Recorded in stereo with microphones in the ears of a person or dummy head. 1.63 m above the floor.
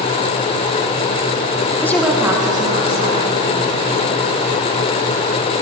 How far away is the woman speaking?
About 1.0 m.